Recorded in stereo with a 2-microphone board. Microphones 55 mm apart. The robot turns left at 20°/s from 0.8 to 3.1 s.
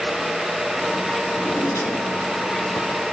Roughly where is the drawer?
Behind left.